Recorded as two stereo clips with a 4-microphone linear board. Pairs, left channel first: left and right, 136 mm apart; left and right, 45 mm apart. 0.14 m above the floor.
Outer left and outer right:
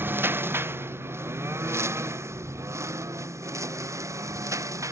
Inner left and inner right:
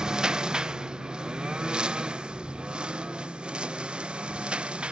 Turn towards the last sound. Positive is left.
turn(degrees=-25)  # may be behind; listen again after turning